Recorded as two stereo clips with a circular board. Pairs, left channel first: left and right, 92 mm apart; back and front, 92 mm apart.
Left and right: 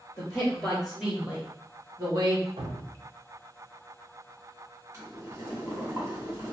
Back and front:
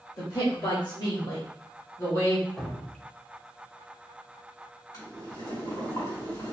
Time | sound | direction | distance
0.2 | a man speaking | 150° left | 1.2 m
2.6 | dripping | 95° right | 0.6 m
4.9 | boiling | 140° right | 1.6 m